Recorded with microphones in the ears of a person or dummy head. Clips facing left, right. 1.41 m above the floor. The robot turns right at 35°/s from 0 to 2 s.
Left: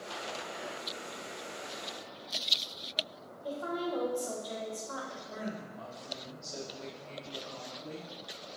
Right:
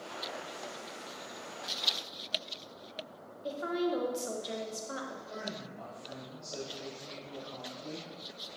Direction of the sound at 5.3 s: 5° left (ahead or behind).